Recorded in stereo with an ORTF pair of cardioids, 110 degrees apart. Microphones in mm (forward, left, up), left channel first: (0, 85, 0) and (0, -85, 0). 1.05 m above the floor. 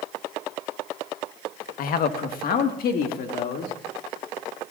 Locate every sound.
1.8 s a man speaking: 60° left, 1.2 m; by 3.7 s 65° left, 2.5 m